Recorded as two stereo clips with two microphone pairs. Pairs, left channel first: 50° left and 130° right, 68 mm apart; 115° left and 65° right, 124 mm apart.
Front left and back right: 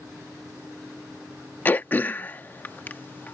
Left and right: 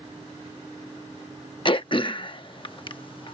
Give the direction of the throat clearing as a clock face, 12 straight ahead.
9 o'clock.